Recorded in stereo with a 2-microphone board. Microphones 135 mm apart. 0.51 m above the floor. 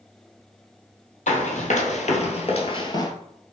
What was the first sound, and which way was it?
Running footsteps, 60° left (ahead or behind).